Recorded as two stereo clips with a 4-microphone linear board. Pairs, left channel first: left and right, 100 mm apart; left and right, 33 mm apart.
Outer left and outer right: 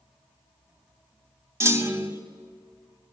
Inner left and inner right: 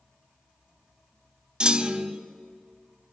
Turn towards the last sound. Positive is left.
turn(degrees=-30)  # may be behind; listen again after turning